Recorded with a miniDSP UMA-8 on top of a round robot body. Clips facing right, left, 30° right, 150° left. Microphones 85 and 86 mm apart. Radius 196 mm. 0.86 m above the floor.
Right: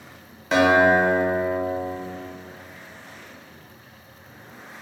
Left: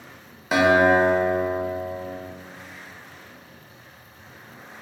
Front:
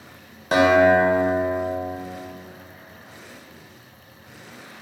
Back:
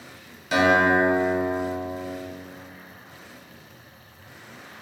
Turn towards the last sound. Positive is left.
turn(degrees=10)